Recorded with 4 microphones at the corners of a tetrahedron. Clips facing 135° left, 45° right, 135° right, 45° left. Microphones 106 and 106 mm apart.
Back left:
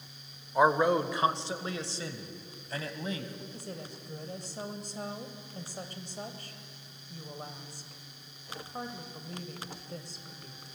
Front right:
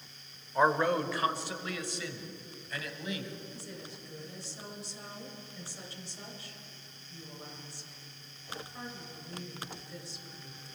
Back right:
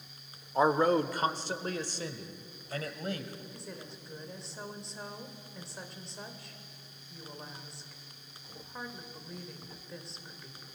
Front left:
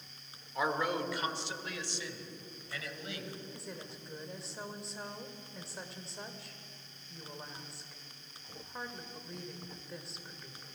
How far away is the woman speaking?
About 1.9 m.